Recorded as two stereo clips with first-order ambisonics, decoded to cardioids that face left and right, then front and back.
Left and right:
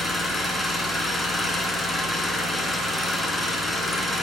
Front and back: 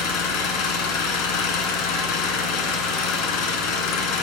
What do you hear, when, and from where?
0.0 s an engine running: 10° left, 1.9 m